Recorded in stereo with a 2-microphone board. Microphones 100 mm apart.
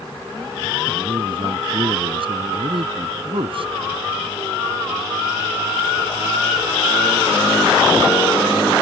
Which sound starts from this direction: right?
A man speaking, at 0.9 s.